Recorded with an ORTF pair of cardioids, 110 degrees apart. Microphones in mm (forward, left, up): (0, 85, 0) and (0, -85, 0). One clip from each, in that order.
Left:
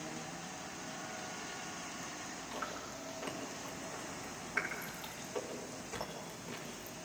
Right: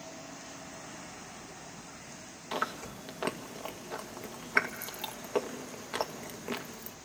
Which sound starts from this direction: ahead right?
Chewing, at 2.5 s.